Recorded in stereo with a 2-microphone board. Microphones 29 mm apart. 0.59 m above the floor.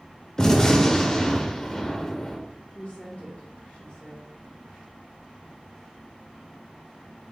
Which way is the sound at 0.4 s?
20° left (ahead or behind).